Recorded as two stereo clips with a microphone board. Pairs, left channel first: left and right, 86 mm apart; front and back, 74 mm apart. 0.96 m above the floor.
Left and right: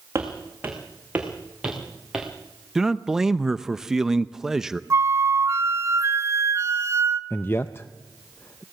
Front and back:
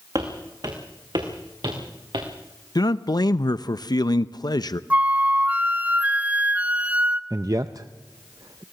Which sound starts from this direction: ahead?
A man speaking, at 2.8 s.